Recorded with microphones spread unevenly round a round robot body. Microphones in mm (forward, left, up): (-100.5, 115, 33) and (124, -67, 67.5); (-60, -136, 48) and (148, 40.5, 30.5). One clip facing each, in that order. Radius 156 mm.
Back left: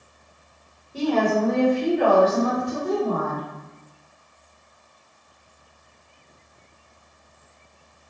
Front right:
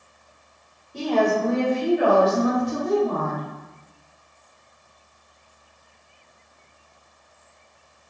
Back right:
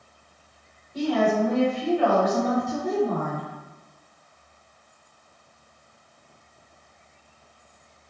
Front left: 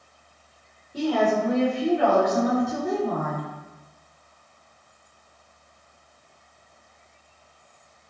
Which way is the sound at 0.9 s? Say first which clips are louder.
Even, even; 70° left.